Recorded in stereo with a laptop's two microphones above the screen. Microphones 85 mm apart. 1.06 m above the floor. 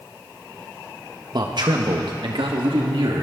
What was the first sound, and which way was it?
A man speaking, 55° right (ahead or behind).